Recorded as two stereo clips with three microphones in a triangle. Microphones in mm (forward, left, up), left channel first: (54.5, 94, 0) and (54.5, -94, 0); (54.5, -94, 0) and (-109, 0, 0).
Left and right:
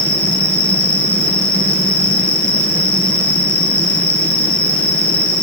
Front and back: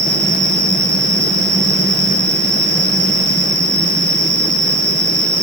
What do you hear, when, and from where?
0.0 s an insect: 160° right, 1.8 m